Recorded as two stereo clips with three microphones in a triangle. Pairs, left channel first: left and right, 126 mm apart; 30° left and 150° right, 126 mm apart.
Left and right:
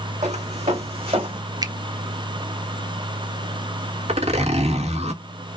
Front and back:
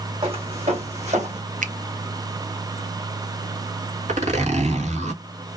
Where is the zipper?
125° right, 1.5 m.